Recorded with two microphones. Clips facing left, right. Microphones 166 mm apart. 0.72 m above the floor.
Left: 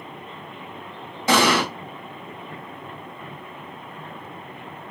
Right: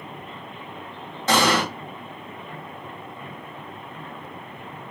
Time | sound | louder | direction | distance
1.3 | an explosion | left 1 dB | 10° left (ahead or behind) | 1.2 m